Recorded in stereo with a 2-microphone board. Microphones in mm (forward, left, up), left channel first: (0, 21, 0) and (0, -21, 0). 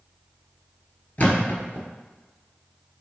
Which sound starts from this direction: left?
A thud, at 1.2 s.